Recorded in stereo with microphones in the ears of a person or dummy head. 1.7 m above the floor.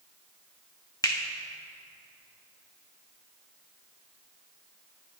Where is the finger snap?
20° left (ahead or behind), 0.6 m.